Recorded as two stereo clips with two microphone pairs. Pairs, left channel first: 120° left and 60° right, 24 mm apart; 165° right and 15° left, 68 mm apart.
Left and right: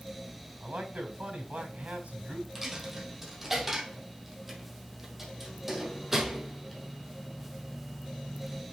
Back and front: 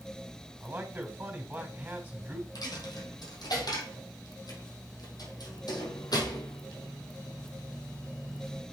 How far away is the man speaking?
About 3.5 m.